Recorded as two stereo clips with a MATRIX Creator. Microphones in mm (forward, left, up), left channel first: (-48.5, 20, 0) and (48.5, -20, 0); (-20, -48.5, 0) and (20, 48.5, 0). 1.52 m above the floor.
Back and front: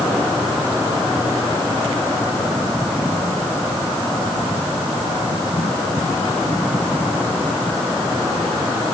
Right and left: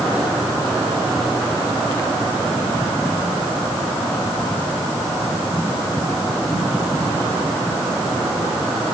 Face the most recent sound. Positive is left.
No sound to turn to.